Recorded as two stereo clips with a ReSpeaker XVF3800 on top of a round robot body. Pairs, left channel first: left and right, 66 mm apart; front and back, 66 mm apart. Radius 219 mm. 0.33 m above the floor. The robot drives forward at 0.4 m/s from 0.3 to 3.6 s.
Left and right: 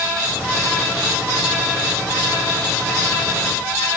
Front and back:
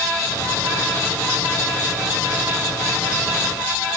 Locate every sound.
Only background noise.